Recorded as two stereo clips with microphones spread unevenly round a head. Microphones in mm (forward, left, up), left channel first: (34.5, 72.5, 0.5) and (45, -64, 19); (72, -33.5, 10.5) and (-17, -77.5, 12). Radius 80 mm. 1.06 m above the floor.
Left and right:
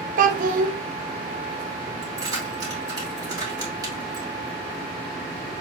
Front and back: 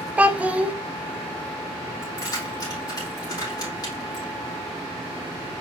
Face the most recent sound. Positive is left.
turn(degrees=-20)